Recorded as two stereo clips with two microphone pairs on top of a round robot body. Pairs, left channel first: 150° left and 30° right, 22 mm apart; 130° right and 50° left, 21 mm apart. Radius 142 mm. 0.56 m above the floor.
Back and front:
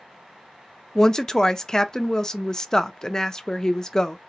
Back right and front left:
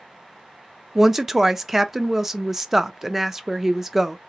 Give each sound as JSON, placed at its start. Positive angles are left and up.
{"t": 0.9, "sound": "a woman speaking", "azimuth_deg": 85, "distance_m": 0.7}